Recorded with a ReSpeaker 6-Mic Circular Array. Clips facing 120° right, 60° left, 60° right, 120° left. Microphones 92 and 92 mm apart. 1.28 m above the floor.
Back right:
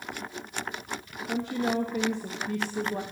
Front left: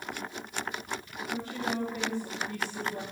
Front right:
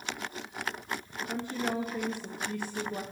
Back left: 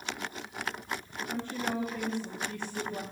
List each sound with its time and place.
1.3 s a woman speaking: 135° right, 1.4 m